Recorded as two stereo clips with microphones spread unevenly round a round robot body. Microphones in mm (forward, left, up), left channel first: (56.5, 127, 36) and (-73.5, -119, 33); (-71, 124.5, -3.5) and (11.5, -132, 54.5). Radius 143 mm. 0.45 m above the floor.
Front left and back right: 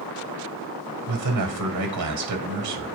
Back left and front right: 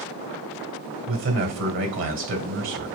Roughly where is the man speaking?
Behind right.